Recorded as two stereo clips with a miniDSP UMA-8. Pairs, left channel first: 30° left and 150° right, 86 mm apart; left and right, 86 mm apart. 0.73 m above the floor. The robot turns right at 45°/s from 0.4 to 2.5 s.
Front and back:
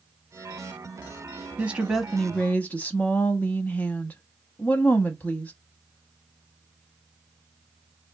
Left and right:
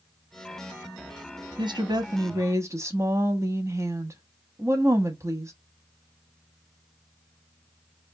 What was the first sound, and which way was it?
A woman speaking, 85° right.